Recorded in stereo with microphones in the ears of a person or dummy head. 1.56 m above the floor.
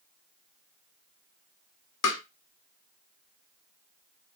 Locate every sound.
2.0 s tapping: 75° left (ahead or behind), 0.6 m